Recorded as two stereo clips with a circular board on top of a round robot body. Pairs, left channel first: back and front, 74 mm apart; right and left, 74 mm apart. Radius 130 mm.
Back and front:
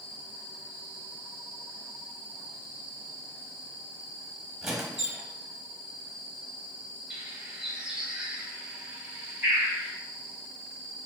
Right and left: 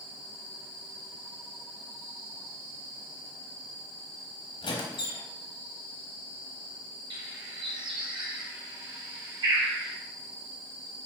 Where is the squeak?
85° right, 1.0 m.